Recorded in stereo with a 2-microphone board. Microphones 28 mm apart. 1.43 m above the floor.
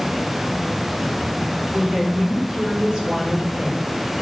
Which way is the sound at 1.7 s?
25° right (ahead or behind).